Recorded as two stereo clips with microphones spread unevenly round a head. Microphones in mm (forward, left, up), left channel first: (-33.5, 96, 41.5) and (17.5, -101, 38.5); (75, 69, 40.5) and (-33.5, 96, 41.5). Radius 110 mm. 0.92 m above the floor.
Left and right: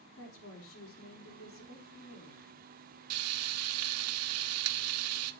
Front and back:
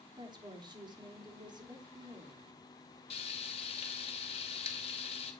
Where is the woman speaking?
120° left, 3 m.